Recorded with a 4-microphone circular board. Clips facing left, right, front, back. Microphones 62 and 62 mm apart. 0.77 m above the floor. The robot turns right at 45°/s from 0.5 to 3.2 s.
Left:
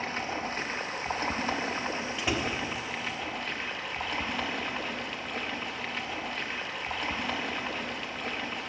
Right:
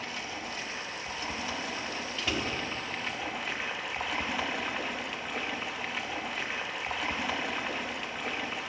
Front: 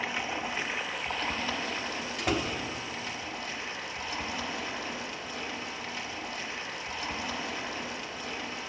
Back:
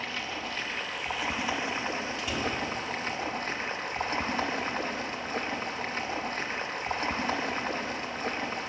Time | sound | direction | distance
0.0 | running water | 65° left | 0.8 m
2.2 | a door slam | 15° left | 1.0 m